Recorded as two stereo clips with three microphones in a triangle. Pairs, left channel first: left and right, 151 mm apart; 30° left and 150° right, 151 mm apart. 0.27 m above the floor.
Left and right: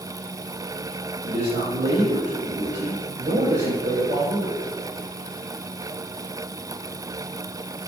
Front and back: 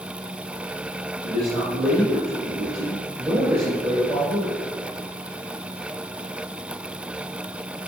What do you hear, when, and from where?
1.2 s a man speaking: 70° right, 3.5 m